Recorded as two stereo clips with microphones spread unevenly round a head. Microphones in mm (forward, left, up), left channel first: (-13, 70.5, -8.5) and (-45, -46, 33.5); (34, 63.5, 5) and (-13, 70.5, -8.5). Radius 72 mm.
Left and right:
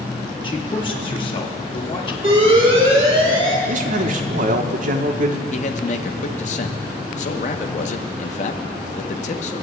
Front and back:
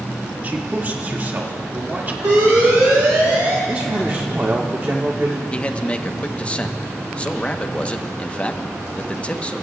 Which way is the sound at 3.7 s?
125° right.